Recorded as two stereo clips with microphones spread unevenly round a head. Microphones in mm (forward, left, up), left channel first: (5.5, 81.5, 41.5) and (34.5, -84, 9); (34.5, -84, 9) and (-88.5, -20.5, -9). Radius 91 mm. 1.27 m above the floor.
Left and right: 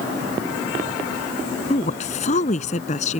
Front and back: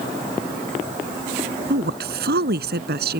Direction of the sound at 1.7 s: 155° left.